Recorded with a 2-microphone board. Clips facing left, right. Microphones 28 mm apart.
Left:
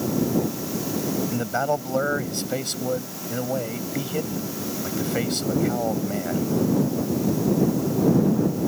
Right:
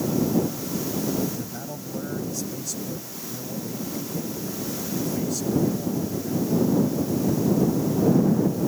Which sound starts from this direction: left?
A man speaking, at 1.3 s.